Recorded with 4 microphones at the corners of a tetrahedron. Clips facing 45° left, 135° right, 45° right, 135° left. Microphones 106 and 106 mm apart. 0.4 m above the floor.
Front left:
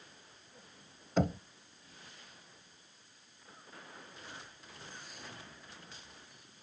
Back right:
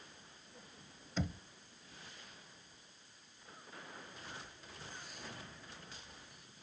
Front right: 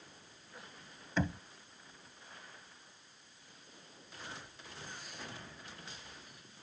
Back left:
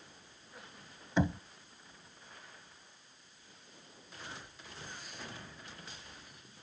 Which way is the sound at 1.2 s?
65° left.